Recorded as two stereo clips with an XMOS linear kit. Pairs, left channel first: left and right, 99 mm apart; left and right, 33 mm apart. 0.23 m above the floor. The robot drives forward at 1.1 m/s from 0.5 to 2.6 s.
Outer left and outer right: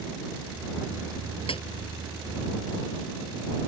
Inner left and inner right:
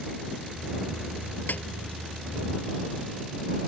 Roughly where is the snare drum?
Left.